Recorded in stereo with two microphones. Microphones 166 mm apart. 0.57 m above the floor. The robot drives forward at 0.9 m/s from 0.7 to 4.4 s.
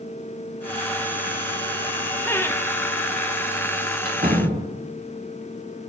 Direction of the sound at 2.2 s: 15° left (ahead or behind).